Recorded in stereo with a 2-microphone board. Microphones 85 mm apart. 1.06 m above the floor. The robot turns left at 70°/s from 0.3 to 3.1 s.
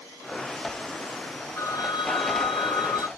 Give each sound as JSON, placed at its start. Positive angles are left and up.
{"t": 1.6, "sound": "a phone ringing", "azimuth_deg": 145, "distance_m": 0.5}